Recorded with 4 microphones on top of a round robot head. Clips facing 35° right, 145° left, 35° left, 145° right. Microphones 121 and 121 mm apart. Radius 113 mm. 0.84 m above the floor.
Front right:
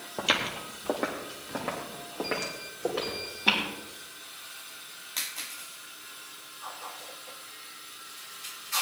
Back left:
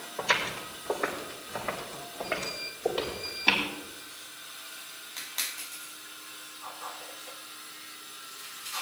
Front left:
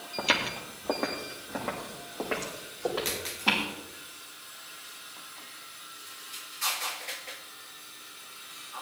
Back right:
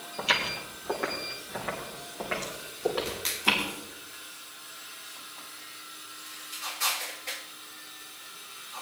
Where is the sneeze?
No sneeze in this recording.